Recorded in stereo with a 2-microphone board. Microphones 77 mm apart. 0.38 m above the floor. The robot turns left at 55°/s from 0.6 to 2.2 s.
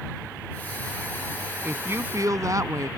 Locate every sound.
1.6 s a woman speaking: 20° right; by 2.9 s 55° right